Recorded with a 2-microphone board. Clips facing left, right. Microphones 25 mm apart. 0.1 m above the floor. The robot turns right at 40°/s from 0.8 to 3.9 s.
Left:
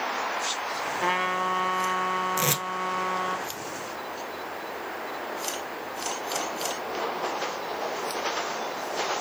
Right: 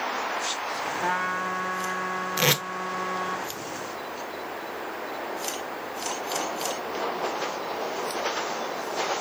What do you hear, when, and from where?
1.0 s a trumpet: 50° left, 1.3 m; by 3.4 s 145° left, 1.3 m
2.4 s tape being pulled: 35° right (ahead or behind), 0.5 m